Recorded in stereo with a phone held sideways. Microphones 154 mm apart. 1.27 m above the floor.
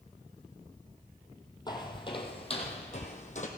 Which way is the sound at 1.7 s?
25° left (ahead or behind).